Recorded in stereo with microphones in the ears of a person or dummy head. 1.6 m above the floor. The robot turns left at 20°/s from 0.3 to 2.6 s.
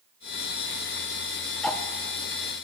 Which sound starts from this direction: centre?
Ticking, at 1.6 s.